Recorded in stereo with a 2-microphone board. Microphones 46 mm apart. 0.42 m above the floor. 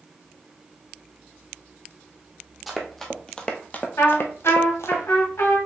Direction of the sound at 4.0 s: 80° left.